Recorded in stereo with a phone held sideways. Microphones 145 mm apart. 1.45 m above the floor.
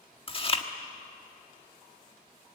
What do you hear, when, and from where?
0.3 s chewing: 35° left (ahead or behind), 1.5 m